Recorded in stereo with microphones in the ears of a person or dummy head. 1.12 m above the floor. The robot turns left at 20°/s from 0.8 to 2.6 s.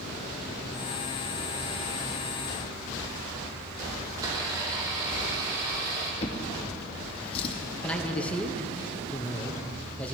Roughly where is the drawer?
Left.